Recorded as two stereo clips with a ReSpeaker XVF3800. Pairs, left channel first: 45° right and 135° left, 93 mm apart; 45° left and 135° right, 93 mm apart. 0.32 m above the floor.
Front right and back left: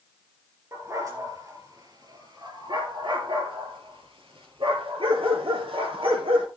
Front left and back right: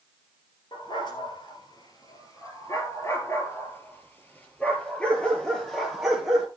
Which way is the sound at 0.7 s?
80° left.